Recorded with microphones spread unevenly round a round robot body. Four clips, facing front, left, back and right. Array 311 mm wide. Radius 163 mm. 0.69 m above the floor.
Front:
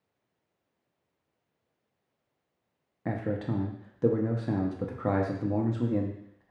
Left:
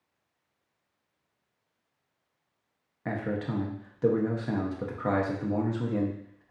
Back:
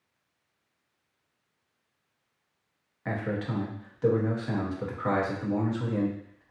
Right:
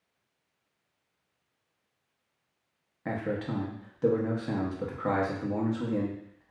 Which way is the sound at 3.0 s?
5° left.